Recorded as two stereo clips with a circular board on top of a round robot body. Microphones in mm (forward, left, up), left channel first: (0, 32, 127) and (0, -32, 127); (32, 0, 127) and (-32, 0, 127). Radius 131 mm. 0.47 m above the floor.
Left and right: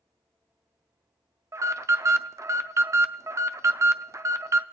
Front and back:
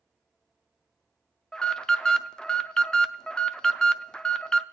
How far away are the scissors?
No scissors in this recording.